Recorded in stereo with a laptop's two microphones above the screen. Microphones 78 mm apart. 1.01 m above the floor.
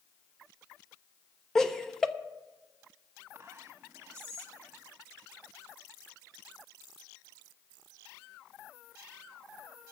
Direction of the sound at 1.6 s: 5° left (ahead or behind).